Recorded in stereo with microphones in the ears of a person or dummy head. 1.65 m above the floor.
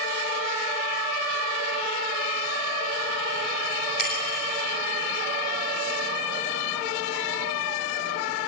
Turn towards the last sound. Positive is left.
turn(degrees=50)  # may be behind; listen again after turning